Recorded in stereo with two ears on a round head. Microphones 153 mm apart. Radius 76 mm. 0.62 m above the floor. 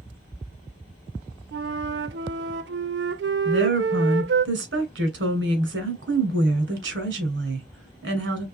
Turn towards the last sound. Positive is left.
turn(degrees=-75)  # may be behind; listen again after turning